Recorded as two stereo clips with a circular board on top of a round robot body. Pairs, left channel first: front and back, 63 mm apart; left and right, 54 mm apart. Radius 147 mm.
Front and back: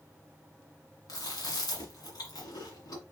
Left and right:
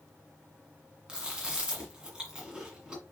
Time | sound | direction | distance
1.1 | chewing | 15° right | 1.7 m